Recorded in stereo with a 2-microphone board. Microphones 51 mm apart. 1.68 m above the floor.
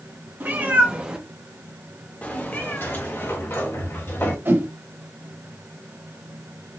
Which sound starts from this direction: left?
A sliding door, at 2.8 s.